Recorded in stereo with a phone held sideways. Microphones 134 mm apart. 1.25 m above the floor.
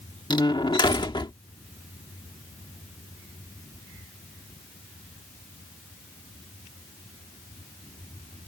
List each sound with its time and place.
0.3 s a door slam: 35° left (ahead or behind)